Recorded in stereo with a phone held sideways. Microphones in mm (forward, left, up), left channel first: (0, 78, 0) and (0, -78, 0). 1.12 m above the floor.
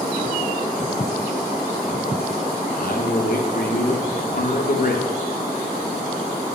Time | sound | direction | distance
2.7 | a man speaking | 65° left (ahead or behind) | 0.7 m